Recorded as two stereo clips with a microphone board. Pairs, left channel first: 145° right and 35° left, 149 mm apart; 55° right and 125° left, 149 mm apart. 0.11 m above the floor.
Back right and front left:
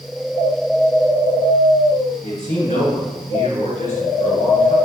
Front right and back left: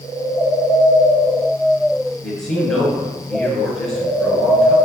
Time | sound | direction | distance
2.2 | a man speaking | 140° right | 2.5 m